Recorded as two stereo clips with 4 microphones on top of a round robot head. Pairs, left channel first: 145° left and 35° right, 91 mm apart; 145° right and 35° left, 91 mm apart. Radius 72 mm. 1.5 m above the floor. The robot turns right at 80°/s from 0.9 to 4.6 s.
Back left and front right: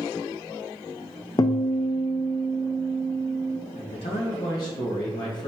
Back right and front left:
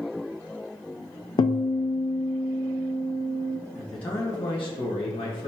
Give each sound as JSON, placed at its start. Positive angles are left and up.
{"t": 1.4, "sound": "a guitar", "azimuth_deg": -175, "distance_m": 0.5}
{"t": 3.8, "sound": "a man speaking", "azimuth_deg": 120, "distance_m": 1.5}